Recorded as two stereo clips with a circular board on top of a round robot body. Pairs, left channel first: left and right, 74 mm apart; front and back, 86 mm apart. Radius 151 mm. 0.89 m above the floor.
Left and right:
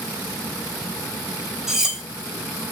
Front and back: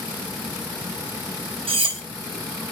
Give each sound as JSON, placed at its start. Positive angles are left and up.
{"t": 1.7, "sound": "cutlery clinking", "azimuth_deg": -170, "distance_m": 1.0}